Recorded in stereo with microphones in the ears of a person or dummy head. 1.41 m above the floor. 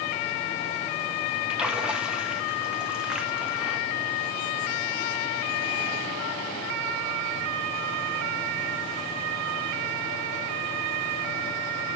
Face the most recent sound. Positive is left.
turn(degrees=-5)  # may be behind; listen again after turning